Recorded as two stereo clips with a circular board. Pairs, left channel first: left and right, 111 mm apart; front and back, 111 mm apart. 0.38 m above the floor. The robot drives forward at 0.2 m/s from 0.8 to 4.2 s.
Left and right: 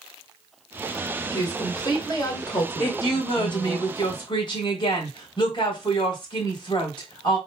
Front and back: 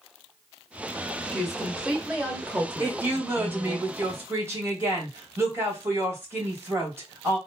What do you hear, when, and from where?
1.3 s a woman speaking: 90° left, 1.3 m; by 3.8 s 120° left, 1.4 m
2.8 s a woman speaking: 110° left, 1.9 m; by 7.4 s 120° left, 2 m